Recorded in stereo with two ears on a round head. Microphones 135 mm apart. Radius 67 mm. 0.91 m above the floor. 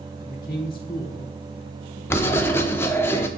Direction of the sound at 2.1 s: 15° left (ahead or behind).